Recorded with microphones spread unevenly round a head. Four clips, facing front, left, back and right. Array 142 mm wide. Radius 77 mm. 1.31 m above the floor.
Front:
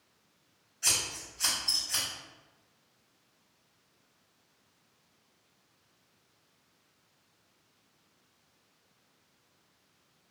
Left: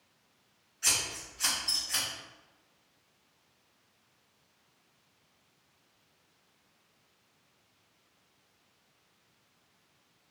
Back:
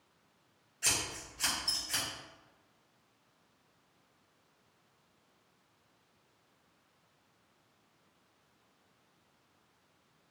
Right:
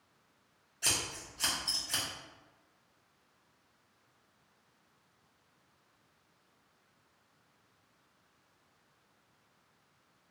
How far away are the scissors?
About 0.9 m.